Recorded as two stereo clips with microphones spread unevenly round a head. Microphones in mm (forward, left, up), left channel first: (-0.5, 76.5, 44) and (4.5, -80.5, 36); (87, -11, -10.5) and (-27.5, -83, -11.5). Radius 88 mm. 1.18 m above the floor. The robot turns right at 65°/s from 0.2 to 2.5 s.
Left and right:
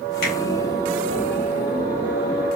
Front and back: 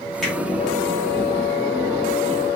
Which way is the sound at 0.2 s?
120° left.